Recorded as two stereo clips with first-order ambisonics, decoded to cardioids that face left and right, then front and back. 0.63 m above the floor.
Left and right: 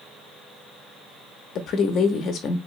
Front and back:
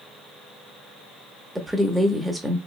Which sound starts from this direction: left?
A woman speaking, at 1.6 s.